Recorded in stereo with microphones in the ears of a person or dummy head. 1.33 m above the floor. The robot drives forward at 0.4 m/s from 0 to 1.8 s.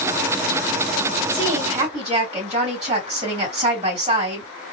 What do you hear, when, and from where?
1.3 s a woman speaking: 30° right (ahead or behind), 2.5 m